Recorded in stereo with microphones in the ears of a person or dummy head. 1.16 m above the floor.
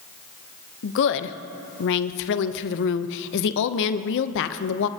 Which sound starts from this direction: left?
A woman speaking, at 0.8 s.